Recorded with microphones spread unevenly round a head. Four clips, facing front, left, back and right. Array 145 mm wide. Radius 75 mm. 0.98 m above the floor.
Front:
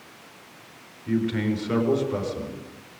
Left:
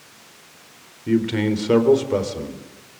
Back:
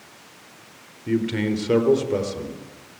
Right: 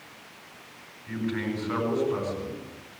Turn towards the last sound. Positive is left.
turn(degrees=120)